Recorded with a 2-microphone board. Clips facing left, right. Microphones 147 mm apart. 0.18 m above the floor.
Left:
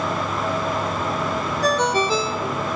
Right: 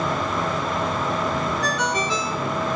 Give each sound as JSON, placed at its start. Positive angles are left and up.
{"t": 1.6, "sound": "a ringtone", "side_deg": 35, "distance_m": 1.1}